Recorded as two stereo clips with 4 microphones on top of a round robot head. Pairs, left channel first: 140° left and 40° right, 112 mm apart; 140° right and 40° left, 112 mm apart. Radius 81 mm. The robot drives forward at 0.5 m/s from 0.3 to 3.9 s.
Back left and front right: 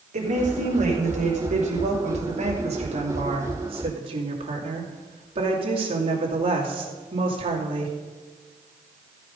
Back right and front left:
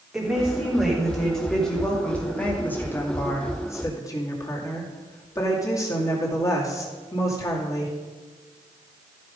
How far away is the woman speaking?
About 3.5 m.